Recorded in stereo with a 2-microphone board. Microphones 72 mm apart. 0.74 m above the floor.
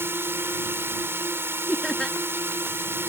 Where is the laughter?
Centre (ahead or behind).